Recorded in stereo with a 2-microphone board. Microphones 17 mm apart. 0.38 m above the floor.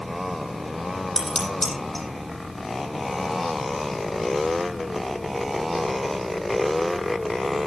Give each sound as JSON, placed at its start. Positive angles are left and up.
{"t": 1.2, "sound": "dishes clattering", "side_deg": 20, "distance_m": 8.0}